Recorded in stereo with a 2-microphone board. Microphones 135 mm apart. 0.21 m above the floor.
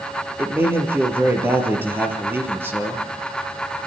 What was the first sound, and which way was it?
A man speaking, 15° right (ahead or behind).